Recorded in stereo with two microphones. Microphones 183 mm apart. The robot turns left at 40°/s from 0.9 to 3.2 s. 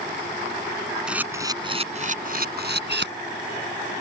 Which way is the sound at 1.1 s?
5° right (ahead or behind).